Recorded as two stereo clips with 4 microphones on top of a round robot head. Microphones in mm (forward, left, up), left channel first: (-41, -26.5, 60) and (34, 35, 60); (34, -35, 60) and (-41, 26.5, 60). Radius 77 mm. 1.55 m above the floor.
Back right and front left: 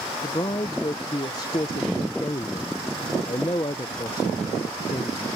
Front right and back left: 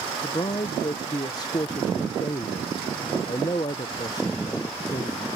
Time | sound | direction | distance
0.2 | a man speaking | 90° right | ?